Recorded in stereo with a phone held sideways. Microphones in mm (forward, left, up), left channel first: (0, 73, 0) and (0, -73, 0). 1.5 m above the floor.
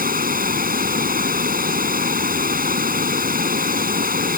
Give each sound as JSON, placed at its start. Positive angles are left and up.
{"t": 0.0, "sound": "running water", "side_deg": -80}